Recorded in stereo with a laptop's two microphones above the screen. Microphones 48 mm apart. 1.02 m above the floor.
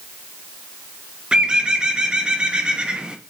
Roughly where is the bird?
Centre.